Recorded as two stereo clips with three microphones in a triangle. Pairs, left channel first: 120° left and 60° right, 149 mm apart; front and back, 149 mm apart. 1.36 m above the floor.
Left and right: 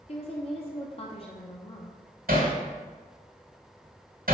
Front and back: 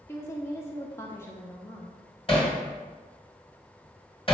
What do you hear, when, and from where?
0.1 s a woman speaking: 75° left, 0.7 m
2.3 s hammering: 50° right, 1.9 m